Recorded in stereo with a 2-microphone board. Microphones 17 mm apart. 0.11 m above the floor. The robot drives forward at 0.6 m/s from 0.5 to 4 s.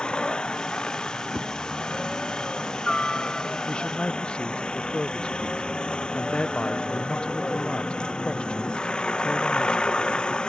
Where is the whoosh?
45° right (ahead or behind).